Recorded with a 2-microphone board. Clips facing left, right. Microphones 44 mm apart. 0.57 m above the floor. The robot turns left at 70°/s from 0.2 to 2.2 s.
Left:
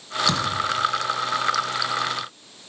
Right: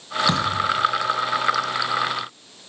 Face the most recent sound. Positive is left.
turn(degrees=-155)